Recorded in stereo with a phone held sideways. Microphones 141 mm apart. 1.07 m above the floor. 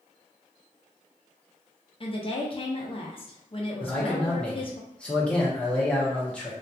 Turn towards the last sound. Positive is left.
turn(degrees=10)  # may be behind; listen again after turning